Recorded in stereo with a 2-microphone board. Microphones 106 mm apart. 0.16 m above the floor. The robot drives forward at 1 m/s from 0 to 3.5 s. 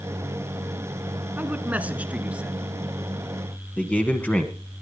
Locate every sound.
1.4 s a man speaking: 15° right (ahead or behind), 1.3 m; by 2.8 s 10° right (ahead or behind), 2.5 m
3.8 s a man speaking: 15° left (ahead or behind), 1.3 m